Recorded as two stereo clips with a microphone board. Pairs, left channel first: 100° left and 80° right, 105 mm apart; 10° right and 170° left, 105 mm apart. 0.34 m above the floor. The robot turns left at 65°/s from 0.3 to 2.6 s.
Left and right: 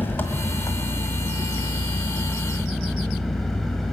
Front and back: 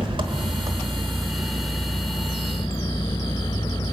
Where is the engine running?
165° left, 1.2 m; by 3.9 s 15° left, 1.2 m.